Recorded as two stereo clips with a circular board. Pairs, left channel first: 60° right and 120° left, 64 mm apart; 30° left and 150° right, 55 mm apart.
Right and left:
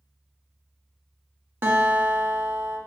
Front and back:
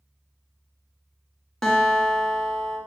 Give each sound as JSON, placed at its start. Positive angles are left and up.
{"t": 1.6, "sound": "a guitar", "azimuth_deg": 105, "distance_m": 1.8}